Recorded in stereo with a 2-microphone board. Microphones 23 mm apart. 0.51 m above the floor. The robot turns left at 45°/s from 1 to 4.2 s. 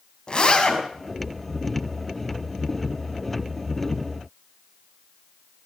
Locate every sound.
0.3 s a zipper: 40° left (ahead or behind), 3 m